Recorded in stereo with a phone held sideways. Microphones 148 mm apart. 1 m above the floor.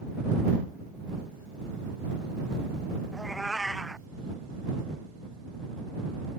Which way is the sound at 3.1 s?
Centre (ahead or behind).